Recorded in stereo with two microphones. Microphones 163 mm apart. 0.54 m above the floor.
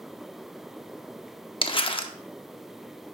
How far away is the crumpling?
About 0.6 m.